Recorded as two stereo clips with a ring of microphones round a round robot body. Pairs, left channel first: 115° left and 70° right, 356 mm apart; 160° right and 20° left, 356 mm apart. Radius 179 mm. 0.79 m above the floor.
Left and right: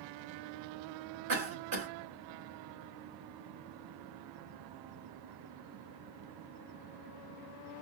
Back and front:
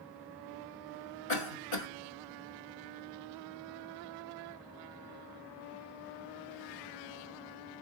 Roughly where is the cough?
Behind right.